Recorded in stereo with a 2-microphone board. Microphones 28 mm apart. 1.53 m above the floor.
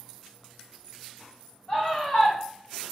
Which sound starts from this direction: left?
A scream, at 1.7 s.